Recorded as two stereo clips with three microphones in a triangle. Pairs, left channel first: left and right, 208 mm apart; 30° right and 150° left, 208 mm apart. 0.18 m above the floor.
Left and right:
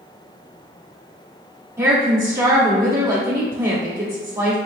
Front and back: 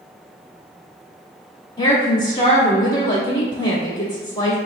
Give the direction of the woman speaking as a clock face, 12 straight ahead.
1 o'clock.